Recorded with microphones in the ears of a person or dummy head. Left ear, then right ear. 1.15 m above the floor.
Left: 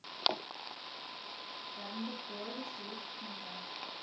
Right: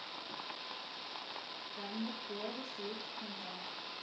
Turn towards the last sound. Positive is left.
turn(degrees=-10)  # may be behind; listen again after turning